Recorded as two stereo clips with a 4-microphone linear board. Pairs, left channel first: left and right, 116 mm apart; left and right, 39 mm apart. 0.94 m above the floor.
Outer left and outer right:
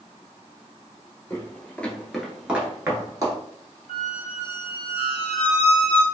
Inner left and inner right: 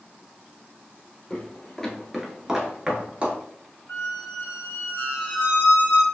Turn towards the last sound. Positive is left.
turn(degrees=65)  # may be behind; listen again after turning